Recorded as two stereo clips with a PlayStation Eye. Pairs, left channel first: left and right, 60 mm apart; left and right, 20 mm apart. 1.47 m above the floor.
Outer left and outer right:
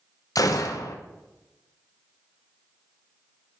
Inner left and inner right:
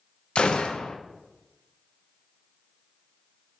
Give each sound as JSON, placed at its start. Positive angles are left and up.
{"t": 0.3, "sound": "a gunshot", "side_deg": 75, "distance_m": 1.0}